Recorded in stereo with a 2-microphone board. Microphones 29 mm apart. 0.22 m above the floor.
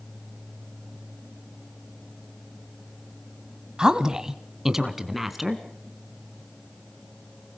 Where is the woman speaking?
30° right (ahead or behind), 1.1 m; by 5.6 s 5° right (ahead or behind), 2 m.